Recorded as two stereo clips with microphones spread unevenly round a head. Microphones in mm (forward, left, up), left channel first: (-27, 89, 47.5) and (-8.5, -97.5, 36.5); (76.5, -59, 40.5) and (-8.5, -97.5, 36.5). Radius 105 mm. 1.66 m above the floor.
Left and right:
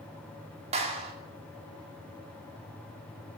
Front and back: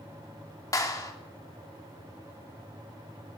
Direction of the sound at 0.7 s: 25° right.